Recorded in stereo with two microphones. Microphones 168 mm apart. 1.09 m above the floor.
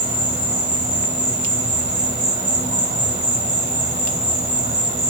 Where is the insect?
45° right (ahead or behind), 1.1 m.